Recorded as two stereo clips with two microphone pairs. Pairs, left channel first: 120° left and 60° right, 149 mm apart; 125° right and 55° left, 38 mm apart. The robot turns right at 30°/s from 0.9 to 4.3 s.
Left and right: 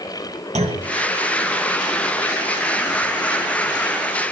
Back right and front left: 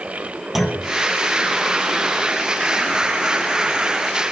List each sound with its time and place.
0.6 s a clunk: 25° right, 2.0 m